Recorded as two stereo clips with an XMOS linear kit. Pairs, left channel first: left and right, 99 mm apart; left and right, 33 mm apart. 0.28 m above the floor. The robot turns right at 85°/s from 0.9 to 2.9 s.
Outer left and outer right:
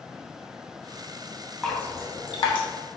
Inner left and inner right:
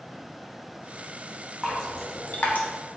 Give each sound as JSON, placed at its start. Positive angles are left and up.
{"t": 1.6, "sound": "dripping", "side_deg": 0, "distance_m": 1.1}